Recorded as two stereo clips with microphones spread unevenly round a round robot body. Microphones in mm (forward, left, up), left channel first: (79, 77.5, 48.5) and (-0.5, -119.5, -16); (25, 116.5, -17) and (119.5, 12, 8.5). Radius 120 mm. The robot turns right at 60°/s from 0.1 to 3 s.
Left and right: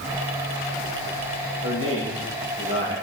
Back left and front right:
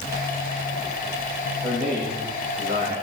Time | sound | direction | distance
1.6 | a man speaking | 120° right | 8.5 m